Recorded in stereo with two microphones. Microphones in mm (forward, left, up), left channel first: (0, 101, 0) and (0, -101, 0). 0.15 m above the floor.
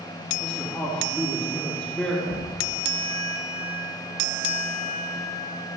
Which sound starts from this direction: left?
Knocking, at 2.3 s.